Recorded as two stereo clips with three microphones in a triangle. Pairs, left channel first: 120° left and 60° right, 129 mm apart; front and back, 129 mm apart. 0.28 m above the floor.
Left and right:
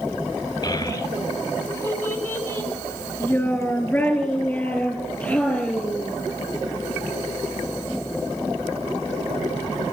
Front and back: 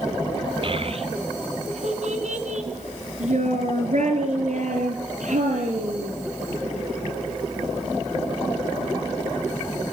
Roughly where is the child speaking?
Behind.